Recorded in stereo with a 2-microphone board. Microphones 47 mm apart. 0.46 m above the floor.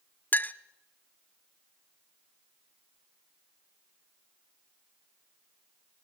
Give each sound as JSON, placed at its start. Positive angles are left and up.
{"t": 0.3, "sound": "a clink", "side_deg": 40, "distance_m": 0.5}